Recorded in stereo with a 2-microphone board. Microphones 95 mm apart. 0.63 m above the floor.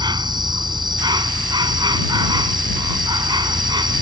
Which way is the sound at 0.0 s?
50° right (ahead or behind).